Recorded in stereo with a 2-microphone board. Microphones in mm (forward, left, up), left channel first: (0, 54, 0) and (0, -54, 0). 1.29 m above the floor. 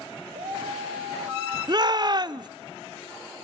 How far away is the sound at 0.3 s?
About 2.5 m.